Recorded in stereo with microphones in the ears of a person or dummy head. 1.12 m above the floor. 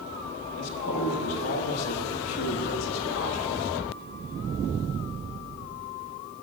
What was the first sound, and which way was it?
A man speaking, 75° left (ahead or behind).